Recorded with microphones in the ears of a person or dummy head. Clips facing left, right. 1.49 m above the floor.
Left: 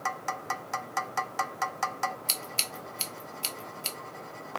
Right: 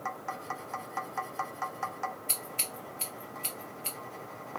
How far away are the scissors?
About 0.9 m.